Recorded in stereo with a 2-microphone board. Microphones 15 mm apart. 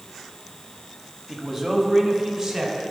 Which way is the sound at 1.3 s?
Centre (ahead or behind).